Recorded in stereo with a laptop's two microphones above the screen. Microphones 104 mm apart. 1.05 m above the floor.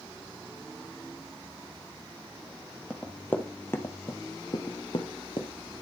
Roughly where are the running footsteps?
Centre.